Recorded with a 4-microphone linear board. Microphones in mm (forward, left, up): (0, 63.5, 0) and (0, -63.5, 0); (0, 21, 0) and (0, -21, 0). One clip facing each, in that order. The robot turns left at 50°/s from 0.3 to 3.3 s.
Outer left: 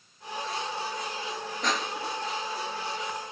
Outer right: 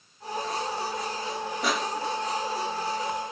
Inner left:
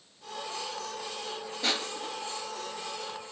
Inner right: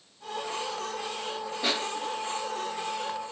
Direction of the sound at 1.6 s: 10° right (ahead or behind).